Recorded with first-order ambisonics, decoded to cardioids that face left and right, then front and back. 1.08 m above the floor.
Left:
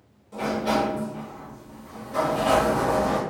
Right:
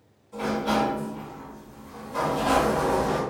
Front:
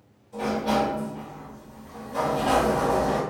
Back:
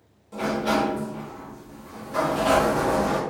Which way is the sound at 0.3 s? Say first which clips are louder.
Left 1 dB, back 1 dB; 155° left.